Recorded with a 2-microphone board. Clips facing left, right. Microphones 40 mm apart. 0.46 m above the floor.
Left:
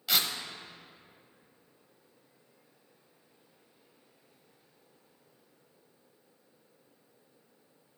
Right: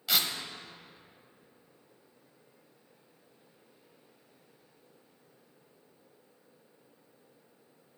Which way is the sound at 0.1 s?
Centre (ahead or behind).